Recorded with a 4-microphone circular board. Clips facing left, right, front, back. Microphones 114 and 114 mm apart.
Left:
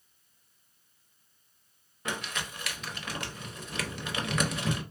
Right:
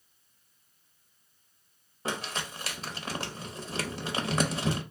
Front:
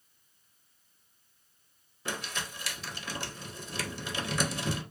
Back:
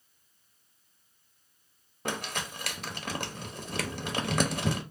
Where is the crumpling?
145° right, 0.7 m.